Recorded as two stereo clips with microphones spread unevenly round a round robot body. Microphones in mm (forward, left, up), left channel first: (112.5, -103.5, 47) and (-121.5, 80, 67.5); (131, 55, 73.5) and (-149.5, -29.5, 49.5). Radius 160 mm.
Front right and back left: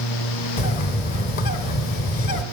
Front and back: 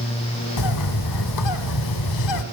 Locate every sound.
0.6 s a bird: 20° left, 1.0 m